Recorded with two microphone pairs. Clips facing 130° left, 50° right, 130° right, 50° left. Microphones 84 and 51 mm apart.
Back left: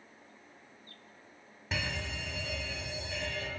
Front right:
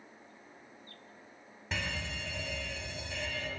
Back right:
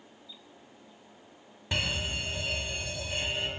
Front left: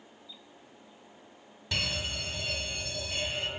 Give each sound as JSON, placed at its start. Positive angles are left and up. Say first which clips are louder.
{"t": 1.7, "sound": "a fire alarm", "louder": "back left 1 dB, back right 2 dB", "azimuth_deg": -145, "distance_m": 1.9}